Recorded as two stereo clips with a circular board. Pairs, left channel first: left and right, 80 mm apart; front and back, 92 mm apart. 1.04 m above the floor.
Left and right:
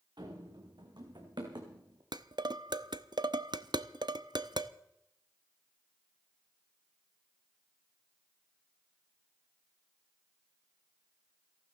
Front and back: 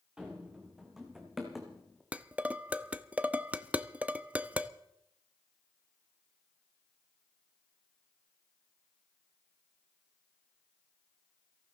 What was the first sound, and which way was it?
Running footsteps, 100° right.